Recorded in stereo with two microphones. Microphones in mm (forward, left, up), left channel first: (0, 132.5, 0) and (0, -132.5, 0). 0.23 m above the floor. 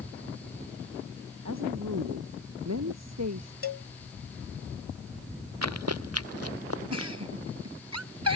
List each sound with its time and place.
1.4 s a woman speaking: 80° right; by 3.5 s 75° right (ahead or behind)
3.6 s a cowbell: 55° left (ahead or behind)
5.6 s running footsteps: 75° right (ahead or behind); by 7.1 s 60° right (ahead or behind)
6.9 s a giggle: 75° right (ahead or behind)